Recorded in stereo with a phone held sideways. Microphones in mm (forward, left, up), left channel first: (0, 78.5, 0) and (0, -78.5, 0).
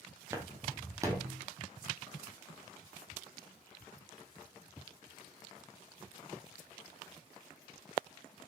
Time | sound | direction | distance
0.3 | footsteps | 15° right (ahead or behind) | 1.6 m